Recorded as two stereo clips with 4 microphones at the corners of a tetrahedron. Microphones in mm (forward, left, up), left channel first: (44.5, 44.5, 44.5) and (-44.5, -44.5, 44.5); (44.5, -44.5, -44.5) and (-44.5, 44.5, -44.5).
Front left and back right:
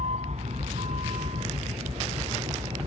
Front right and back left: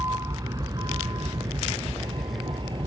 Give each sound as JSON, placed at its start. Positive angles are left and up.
{"t": 0.0, "sound": "a vehicle", "azimuth_deg": -160}